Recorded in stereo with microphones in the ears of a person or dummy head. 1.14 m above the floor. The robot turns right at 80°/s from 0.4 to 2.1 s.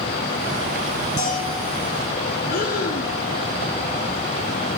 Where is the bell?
110° left, 5.5 m; by 1.6 s 145° left, 5.5 m.